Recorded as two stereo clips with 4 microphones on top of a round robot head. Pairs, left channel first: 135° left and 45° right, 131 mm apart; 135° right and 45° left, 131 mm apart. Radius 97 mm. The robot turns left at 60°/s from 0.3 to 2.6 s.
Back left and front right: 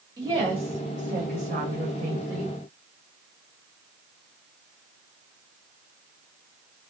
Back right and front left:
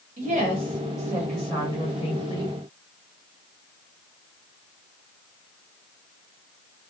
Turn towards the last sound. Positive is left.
turn(degrees=-120)